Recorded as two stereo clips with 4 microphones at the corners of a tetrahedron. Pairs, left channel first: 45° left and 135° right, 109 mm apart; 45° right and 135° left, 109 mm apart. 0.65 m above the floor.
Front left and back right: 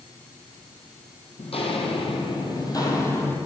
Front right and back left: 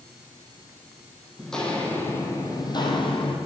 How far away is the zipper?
No zipper in this recording.